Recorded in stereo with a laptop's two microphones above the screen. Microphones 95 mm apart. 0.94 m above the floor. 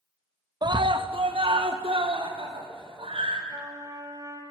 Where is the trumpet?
35° right (ahead or behind), 4.5 m.